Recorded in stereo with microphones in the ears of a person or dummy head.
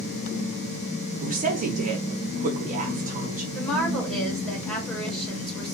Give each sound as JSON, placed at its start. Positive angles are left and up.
{"t": 1.2, "sound": "a woman speaking", "side_deg": -45, "distance_m": 0.9}
{"t": 3.5, "sound": "a woman speaking", "side_deg": 5, "distance_m": 1.3}